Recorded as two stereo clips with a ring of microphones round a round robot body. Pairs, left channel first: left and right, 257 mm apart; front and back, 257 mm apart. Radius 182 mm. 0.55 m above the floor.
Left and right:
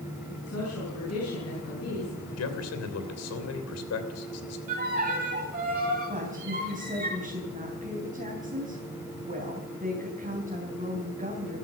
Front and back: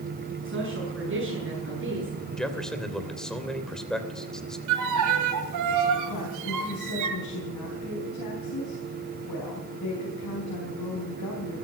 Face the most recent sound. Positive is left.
turn(degrees=-30)